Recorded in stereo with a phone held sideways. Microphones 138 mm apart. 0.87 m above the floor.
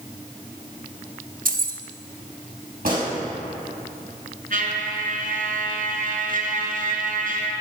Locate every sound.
1.4 s keys jangling: 75° right (ahead or behind), 1.0 m
2.9 s a gunshot: 85° right, 5 m
4.5 s a trumpet: 70° right (ahead or behind), 2 m